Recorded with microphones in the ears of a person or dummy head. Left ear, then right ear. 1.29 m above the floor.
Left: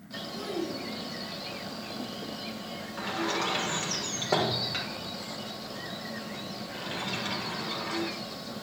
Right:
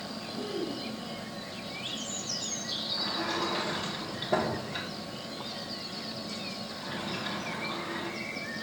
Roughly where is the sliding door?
Left.